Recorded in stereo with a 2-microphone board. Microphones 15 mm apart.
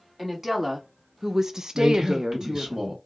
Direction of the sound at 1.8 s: 35° right (ahead or behind).